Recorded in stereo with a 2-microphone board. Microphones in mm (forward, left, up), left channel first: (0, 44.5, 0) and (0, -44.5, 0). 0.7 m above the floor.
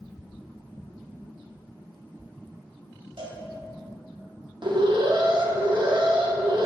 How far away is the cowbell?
About 2.0 m.